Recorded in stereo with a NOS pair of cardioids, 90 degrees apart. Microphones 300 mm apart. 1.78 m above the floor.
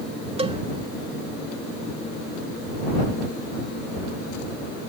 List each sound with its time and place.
0.4 s a cowbell: 20° right